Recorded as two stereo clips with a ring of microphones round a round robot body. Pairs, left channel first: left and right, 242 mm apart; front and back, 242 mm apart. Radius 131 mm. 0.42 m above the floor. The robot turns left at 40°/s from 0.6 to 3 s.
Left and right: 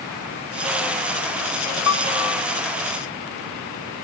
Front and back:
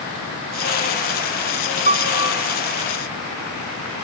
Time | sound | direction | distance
1.9 | a piano | 120° left | 0.6 m